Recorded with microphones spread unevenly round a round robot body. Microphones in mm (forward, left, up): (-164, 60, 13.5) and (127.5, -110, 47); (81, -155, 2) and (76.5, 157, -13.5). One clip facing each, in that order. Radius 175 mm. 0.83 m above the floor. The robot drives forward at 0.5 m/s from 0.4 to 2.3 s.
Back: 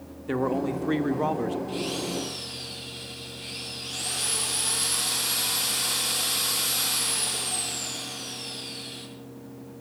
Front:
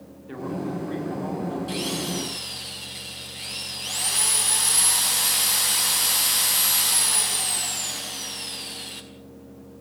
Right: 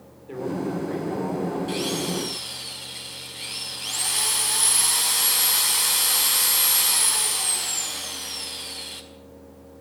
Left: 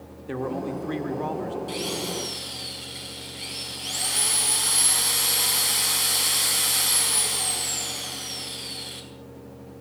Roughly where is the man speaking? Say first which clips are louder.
Back 4 dB, right 1 dB; behind left.